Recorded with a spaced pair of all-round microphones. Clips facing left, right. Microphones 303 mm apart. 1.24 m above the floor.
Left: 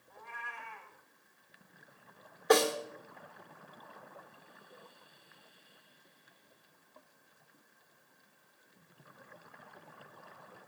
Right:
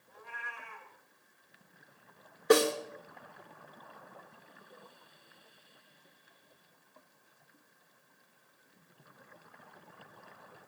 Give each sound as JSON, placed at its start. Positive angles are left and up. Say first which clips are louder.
{"t": 0.1, "sound": "a cat meowing", "louder": "even", "side_deg": -80, "distance_m": 3.0}
{"t": 2.5, "sound": "a snare drum", "louder": "right 2 dB", "side_deg": -35, "distance_m": 1.7}